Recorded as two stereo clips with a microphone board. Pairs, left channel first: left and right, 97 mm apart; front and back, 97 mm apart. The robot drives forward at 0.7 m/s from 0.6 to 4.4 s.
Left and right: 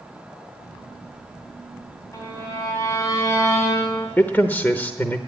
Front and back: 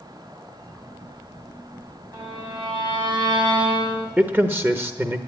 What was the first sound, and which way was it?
A violin, 140° left.